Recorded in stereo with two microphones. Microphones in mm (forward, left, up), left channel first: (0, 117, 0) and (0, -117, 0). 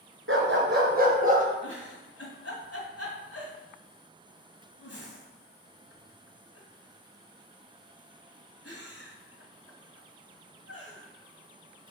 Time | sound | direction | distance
0.3 | a dog barking | 60° right (ahead or behind) | 1.8 m
1.6 | a giggle | 75° left (ahead or behind) | 2 m